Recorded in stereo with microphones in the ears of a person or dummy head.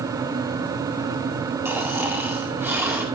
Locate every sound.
1.6 s snoring: 10° right (ahead or behind), 2 m